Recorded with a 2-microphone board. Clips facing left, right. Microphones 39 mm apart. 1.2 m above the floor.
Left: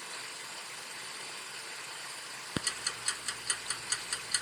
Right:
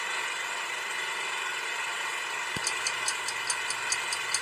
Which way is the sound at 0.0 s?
70° right (ahead or behind).